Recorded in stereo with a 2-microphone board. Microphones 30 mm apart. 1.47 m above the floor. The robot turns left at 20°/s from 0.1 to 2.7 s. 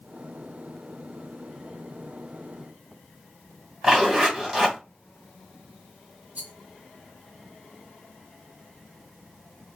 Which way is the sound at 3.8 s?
25° right (ahead or behind).